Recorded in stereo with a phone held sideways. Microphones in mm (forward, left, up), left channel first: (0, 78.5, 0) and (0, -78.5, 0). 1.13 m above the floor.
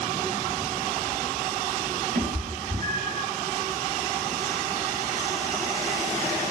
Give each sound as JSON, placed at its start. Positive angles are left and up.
{"t": 2.1, "sound": "a cat meowing", "side_deg": -60, "distance_m": 2.5}